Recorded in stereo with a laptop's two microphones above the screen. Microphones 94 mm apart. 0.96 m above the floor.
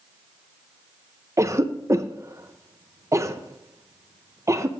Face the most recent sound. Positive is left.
turn(degrees=-30)  # may be behind; listen again after turning